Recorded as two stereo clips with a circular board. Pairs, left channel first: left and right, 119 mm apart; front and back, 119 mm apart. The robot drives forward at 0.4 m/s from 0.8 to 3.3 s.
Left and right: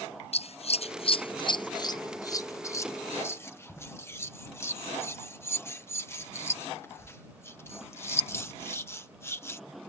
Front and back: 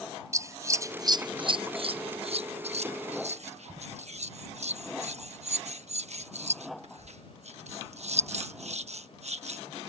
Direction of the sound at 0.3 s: 115° left.